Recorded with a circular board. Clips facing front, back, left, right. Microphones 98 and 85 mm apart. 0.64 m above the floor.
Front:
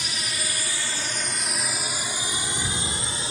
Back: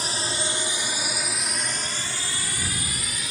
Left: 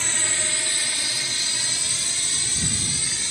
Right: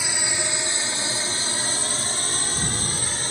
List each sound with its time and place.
0.0 s a drone: 165° right; by 3.3 s 55° right